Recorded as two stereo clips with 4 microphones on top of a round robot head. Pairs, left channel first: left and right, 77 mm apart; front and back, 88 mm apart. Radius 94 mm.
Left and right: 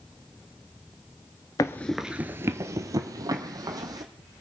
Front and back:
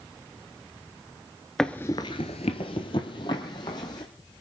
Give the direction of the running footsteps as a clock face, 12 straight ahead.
9 o'clock.